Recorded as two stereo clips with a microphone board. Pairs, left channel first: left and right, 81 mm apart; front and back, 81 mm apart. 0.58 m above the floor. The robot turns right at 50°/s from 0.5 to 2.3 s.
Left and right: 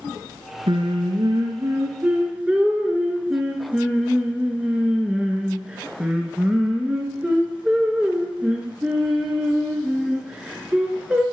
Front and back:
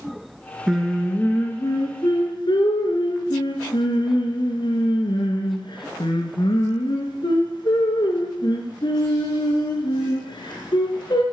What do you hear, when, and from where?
0.7 s singing: 95° right, 1.7 m; by 11.2 s 15° right, 1.7 m